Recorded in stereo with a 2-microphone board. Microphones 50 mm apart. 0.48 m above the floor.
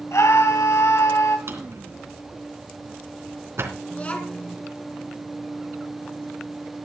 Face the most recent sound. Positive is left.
turn(degrees=30)  # may be behind; listen again after turning